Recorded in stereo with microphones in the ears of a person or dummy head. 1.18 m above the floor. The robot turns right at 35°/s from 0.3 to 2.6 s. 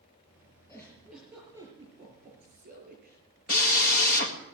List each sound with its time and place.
0.7 s a giggle: 165° left, 6 m; by 3.2 s 130° right, 6 m
3.5 s a drill: 45° left (ahead or behind), 1.9 m